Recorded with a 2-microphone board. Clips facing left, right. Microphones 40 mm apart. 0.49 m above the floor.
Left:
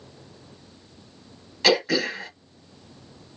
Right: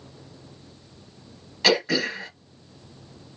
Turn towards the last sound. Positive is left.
turn(degrees=0)  # may be behind; listen again after turning